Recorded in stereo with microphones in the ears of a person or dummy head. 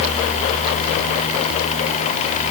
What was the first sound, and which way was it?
Only background noise.